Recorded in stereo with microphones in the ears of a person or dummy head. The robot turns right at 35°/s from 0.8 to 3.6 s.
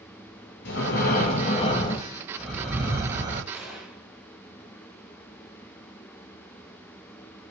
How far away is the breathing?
About 0.8 m.